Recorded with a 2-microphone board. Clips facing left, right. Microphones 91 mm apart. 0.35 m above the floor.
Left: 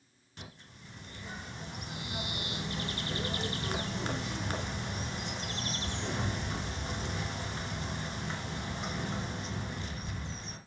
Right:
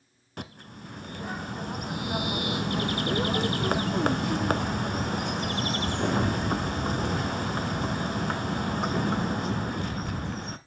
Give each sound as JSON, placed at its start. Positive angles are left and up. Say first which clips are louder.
{"t": 0.4, "sound": "a bird", "louder": "right 10 dB", "side_deg": -60, "distance_m": 0.7}